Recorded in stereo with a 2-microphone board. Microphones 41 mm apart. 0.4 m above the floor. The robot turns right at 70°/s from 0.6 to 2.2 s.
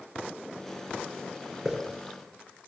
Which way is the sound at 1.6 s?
10° right (ahead or behind).